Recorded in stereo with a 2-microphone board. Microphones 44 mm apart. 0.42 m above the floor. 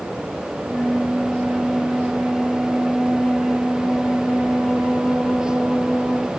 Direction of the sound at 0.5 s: 30° left (ahead or behind).